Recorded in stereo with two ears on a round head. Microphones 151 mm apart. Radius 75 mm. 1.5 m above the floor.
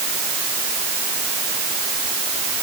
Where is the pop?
No pop in this recording.